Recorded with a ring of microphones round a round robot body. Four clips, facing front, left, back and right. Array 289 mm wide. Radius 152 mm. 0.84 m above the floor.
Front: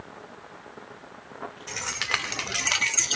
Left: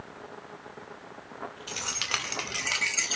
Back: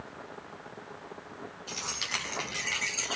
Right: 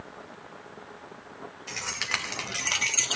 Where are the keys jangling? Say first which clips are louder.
Right 3 dB, front 7 dB; 20° left, 2.5 m; by 3.2 s 30° right, 1.1 m.